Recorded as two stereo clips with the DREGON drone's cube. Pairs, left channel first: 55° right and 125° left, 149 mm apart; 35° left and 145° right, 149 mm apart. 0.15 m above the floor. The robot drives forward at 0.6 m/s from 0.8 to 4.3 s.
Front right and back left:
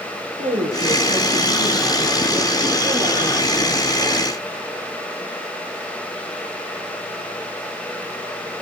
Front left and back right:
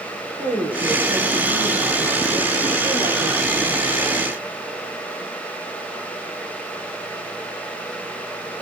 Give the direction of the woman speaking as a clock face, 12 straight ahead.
7 o'clock.